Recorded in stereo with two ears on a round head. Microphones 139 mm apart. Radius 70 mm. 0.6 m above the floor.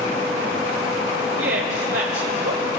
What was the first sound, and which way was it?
A woman speaking, 75° right (ahead or behind).